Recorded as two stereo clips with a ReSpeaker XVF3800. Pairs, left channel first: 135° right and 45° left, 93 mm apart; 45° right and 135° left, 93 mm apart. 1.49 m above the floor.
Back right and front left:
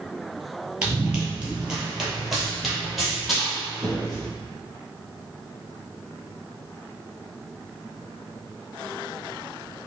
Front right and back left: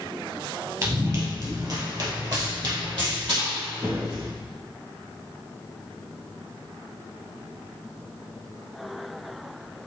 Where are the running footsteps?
110° left, 1.8 m; by 4.3 s 140° left, 3.5 m.